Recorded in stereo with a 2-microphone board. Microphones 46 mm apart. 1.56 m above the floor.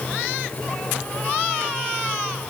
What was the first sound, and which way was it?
Only background noise.